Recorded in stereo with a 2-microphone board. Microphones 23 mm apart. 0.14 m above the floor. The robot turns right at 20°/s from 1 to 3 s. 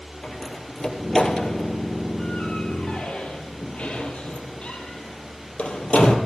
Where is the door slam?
35° left (ahead or behind), 2.5 m; by 6.2 s 65° left (ahead or behind), 2.5 m.